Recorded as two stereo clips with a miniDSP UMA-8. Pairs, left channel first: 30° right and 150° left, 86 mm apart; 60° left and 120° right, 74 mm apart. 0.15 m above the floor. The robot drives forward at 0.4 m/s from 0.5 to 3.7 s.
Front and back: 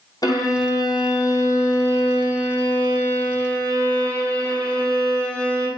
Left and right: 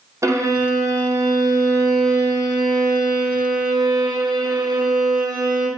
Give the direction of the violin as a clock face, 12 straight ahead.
2 o'clock.